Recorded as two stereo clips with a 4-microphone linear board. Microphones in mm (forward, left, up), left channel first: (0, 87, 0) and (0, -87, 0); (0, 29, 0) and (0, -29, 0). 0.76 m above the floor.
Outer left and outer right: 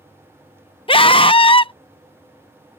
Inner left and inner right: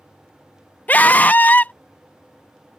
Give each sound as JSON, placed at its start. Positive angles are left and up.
{"t": 0.9, "sound": "a scream", "side_deg": 30}